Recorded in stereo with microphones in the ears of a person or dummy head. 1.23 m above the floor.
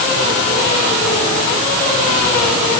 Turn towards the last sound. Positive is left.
No sound to turn to.